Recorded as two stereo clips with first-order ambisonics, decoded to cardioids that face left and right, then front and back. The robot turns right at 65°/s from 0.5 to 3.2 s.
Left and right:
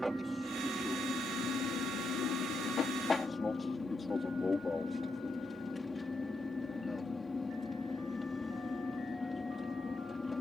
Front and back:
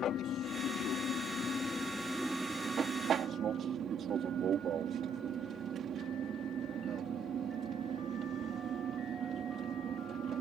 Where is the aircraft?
15° right; by 10.4 s 160° left.